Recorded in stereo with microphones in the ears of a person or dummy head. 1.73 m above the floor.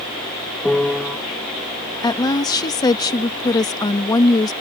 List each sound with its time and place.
0.7 s a piano: 5° left (ahead or behind)
2.0 s a woman speaking: 20° left (ahead or behind)